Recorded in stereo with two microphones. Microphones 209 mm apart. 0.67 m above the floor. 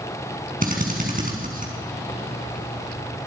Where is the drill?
40° right (ahead or behind), 5 m.